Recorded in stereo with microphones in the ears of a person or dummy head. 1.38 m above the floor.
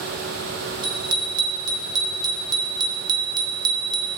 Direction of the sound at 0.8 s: 25° right (ahead or behind).